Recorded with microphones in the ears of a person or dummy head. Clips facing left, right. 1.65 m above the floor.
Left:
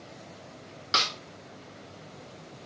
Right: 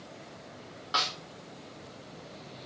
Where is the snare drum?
30° left (ahead or behind), 0.7 m.